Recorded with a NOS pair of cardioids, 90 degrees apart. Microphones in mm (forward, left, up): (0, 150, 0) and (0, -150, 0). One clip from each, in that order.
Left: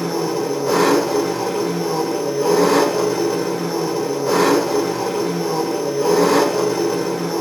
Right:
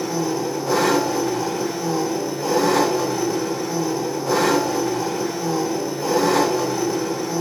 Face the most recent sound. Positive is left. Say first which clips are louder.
# left 2 dB
turn(degrees=40)